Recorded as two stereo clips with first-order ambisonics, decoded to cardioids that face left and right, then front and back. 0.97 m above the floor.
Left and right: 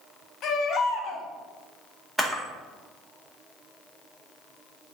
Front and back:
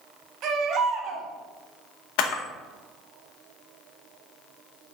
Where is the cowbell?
I don't hear a cowbell.